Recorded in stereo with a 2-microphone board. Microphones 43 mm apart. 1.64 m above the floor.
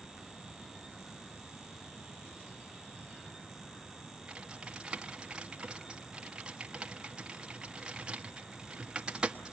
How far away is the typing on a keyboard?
About 1.0 m.